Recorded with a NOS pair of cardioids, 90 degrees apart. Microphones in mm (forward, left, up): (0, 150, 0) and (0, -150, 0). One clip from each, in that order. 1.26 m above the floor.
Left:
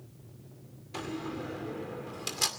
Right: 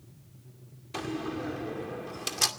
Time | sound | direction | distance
0.9 | a door slam | 20° right | 2.5 m